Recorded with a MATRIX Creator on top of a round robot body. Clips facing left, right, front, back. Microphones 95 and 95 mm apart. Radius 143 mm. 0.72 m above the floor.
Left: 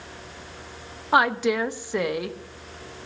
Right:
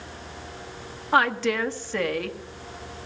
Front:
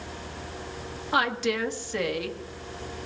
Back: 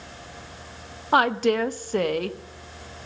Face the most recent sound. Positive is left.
turn(degrees=160)